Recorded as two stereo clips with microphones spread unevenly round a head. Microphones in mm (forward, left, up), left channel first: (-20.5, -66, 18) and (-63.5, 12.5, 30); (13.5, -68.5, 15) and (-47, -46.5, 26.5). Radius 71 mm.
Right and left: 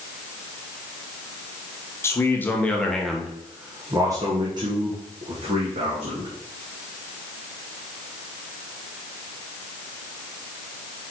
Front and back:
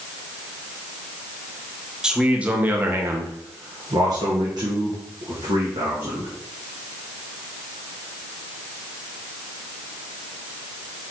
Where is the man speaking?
125° right, 1.4 m; by 6.3 s 130° left, 2.5 m.